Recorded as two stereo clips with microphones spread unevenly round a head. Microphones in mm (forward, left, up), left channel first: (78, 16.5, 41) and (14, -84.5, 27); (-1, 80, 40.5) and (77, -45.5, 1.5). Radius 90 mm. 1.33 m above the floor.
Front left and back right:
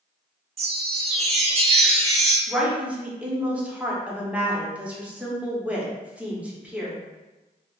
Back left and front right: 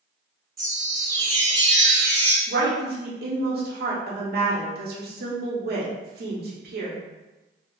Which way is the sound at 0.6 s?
115° right.